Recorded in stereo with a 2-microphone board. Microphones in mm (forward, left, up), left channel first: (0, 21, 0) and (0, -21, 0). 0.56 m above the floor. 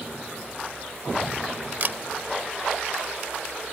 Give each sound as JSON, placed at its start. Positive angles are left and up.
{"t": 1.8, "sound": "a camera shutter", "side_deg": -50}